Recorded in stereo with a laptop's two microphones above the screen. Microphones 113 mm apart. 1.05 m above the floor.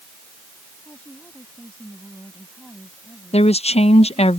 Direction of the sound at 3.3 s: 65° left (ahead or behind).